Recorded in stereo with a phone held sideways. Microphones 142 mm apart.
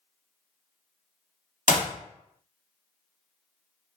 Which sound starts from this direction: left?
A clap, at 1.7 s.